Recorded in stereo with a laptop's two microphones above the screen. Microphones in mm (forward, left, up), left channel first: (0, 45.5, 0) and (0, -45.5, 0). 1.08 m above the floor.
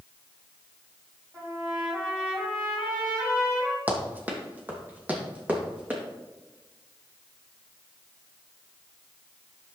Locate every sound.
1.3 s a trumpet: 20° right (ahead or behind), 3.5 m
3.9 s running footsteps: 20° right (ahead or behind), 2 m